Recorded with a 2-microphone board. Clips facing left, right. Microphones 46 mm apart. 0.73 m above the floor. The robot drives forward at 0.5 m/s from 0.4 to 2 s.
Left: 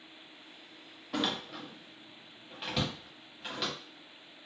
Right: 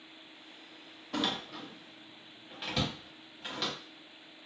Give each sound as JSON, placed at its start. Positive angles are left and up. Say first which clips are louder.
{"t": 1.1, "sound": "a door slam", "louder": "even", "side_deg": 5, "distance_m": 0.7}